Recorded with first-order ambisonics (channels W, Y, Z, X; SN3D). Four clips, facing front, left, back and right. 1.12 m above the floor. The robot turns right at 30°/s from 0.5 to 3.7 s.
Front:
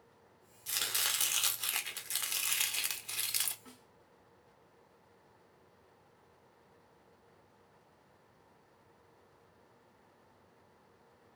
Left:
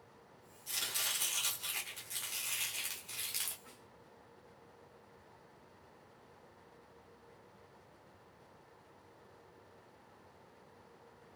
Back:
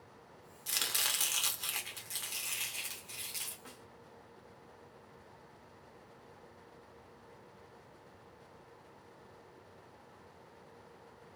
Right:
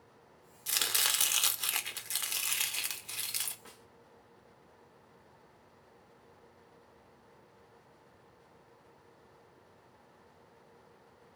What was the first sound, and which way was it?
Chopping, 105° right.